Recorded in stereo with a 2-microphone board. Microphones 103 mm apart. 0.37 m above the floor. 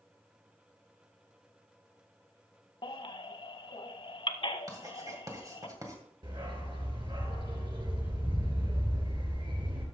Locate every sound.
2.8 s a baby crying: 60° left (ahead or behind), 0.7 m
4.7 s writing: 35° right (ahead or behind), 2 m
6.2 s a dog barking: 60° right (ahead or behind), 2.5 m